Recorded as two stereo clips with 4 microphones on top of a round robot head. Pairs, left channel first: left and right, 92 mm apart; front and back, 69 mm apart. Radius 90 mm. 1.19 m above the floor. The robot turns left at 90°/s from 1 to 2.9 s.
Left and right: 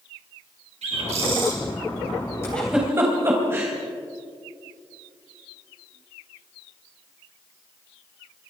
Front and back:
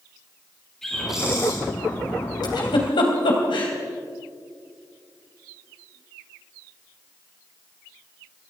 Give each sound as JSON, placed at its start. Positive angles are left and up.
{"t": 0.8, "sound": "a bird", "azimuth_deg": -85, "distance_m": 5.5}
{"t": 2.4, "sound": "a giggle", "azimuth_deg": 20, "distance_m": 3.5}